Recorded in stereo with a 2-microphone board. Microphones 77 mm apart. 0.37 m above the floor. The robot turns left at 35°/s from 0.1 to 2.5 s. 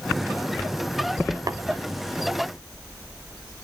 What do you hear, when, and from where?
1.5 s tapping: 55° right (ahead or behind), 0.5 m